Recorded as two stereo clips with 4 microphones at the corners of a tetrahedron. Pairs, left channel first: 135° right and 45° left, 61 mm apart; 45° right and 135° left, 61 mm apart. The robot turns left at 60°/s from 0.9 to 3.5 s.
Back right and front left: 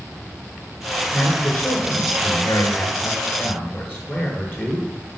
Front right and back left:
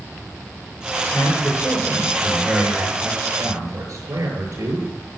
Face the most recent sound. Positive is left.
turn(degrees=165)